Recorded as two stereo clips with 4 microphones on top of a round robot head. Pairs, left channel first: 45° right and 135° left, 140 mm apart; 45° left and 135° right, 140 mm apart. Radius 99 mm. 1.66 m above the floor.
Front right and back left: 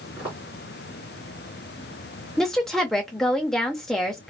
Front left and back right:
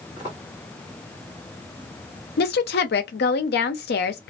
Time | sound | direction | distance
0.2 | footsteps | 165° right | 1.7 m
2.4 | a woman speaking | 45° left | 0.5 m